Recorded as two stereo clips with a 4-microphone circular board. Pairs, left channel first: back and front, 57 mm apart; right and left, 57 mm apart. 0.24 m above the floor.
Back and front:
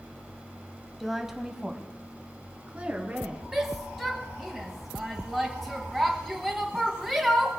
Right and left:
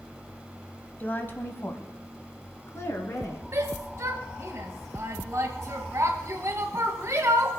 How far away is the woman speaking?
About 1.4 m.